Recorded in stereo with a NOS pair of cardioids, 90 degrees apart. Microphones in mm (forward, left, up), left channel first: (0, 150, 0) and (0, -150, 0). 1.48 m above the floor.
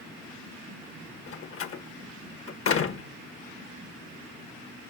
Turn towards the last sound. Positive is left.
turn(degrees=50)